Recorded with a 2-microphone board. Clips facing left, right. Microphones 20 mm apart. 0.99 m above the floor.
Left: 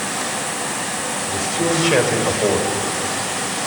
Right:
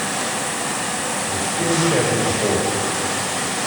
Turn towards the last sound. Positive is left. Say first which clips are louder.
# left 2 dB
turn(degrees=40)  # may be behind; listen again after turning